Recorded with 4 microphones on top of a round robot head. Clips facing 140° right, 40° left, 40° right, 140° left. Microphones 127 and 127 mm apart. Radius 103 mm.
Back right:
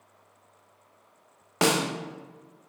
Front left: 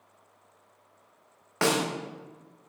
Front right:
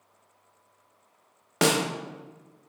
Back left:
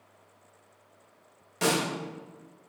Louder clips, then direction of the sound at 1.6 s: Back right 1 dB, front right 3 dB; 70° right.